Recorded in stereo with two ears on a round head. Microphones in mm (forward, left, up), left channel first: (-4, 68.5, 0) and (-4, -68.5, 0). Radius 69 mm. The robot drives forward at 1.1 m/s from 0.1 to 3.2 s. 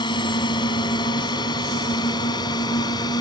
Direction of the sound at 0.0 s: 30° left (ahead or behind).